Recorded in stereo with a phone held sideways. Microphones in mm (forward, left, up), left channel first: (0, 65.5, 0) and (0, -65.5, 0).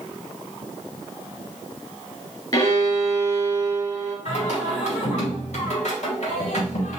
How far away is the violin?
About 1.6 m.